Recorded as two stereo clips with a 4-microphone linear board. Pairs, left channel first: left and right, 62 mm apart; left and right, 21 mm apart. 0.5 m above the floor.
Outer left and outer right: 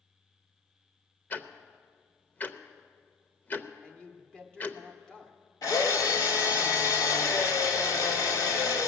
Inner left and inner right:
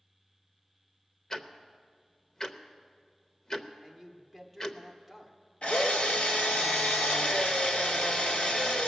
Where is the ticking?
30° left (ahead or behind), 0.6 m.